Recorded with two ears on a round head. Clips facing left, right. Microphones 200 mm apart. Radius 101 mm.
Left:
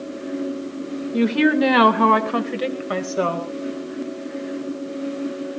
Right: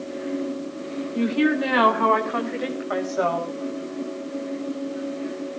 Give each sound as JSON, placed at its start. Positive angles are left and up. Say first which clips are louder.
{"t": 1.1, "sound": "a woman speaking", "louder": "left 4 dB", "side_deg": 65, "distance_m": 2.5}